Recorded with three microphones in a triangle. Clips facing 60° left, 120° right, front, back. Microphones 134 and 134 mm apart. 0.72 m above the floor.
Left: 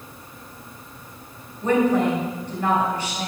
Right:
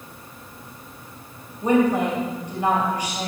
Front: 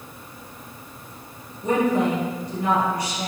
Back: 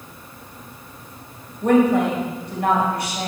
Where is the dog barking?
I don't hear a dog barking.